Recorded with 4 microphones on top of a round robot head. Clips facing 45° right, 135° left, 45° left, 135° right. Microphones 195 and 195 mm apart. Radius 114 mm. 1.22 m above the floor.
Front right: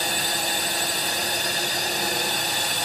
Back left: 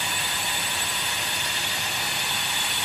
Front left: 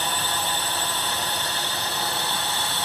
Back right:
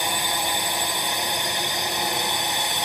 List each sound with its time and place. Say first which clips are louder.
0.0 s a drone: front right 5 dB, back right 1 dB; 65° right